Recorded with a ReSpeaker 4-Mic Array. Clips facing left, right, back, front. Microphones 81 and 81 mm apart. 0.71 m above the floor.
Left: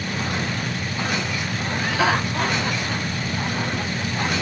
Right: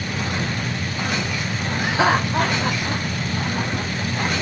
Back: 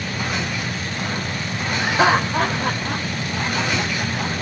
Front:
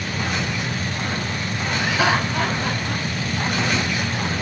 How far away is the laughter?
About 0.9 m.